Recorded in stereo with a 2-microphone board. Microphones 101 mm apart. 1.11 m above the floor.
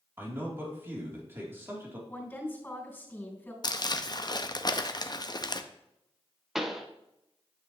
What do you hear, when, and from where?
0.2 s a man speaking: 20° right (ahead or behind), 2.5 m
2.1 s a woman speaking: 20° left (ahead or behind), 3.5 m
3.6 s crumpling: 40° left (ahead or behind), 0.6 m
6.5 s a pop: 5° right (ahead or behind), 0.9 m